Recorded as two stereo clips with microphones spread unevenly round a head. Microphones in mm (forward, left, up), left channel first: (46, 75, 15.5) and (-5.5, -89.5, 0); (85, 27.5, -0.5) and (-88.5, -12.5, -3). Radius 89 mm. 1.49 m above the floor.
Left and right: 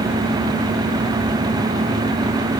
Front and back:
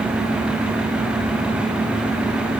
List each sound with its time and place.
Only background noise.